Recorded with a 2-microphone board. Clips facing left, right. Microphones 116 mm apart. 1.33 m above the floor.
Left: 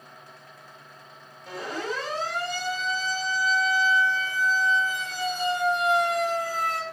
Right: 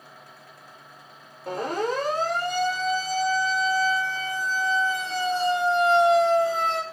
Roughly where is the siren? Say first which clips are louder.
Right 6 dB; right.